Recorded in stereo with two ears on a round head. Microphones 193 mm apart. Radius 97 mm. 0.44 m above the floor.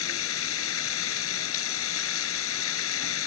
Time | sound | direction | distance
0.0 | running water | 75° left (ahead or behind) | ?